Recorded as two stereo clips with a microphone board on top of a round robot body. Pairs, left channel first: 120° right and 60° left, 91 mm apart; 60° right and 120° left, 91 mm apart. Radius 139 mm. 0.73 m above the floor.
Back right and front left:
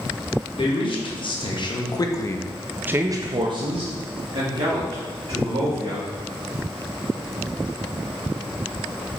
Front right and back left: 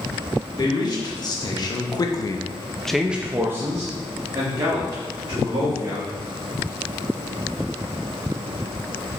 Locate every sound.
0.6 s a man speaking: 100° right, 2 m; by 6.1 s 70° left, 3.5 m